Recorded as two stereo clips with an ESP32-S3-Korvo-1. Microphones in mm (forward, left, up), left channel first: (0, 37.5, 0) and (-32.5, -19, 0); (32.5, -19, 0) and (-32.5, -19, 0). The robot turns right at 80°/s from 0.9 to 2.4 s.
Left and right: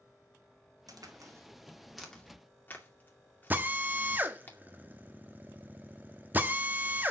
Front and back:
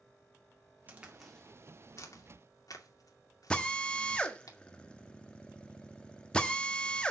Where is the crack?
115° right, 2 m; by 4.5 s 5° left, 2 m.